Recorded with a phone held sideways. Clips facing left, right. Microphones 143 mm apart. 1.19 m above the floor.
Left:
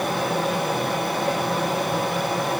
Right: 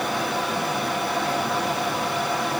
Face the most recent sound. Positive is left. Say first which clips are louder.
# left 2 dB
turn(degrees=50)  # may be behind; listen again after turning